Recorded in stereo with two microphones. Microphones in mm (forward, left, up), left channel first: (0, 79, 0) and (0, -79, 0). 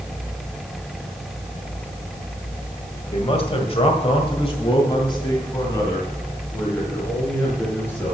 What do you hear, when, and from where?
3.1 s a man speaking: 40° left (ahead or behind), 1.9 m; by 8.1 s 15° left (ahead or behind), 5.5 m